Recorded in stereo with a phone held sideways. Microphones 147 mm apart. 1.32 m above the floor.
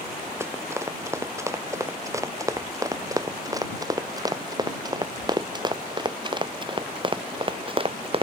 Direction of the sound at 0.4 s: 15° right (ahead or behind).